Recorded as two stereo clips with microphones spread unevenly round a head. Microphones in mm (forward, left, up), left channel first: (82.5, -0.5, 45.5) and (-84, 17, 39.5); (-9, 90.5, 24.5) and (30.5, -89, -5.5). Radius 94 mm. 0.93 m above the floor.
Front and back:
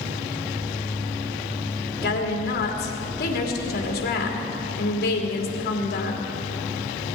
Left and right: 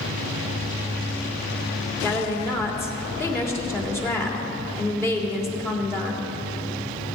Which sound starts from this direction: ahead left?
A woman speaking, at 2.0 s.